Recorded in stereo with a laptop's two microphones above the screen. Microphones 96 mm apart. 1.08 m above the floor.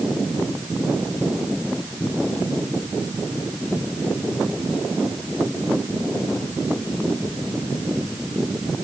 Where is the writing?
No writing in this recording.